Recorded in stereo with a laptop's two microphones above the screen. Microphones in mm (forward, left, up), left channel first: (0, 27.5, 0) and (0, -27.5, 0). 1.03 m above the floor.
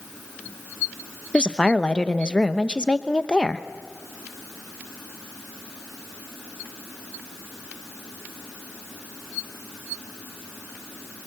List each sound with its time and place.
1.3 s a woman speaking: 15° left (ahead or behind), 0.9 m